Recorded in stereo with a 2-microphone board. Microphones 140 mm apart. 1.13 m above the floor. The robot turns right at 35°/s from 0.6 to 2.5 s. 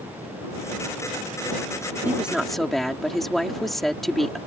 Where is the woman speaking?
15° right (ahead or behind); by 4.4 s centre (ahead or behind).